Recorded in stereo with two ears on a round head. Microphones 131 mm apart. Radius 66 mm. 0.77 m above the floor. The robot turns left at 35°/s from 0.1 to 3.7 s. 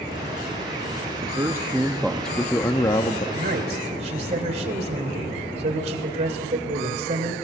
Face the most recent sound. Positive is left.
turn(degrees=-50)  # may be behind; listen again after turning